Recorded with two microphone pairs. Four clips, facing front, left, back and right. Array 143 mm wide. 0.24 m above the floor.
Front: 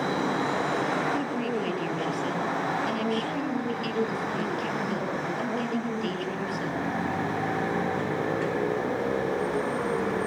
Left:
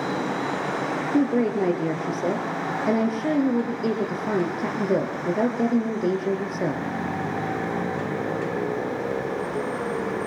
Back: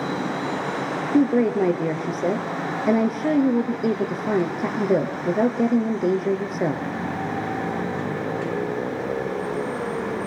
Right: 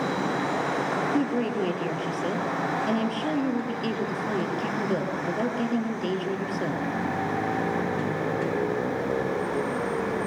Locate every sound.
1.1 s a woman speaking: 155° left, 4 m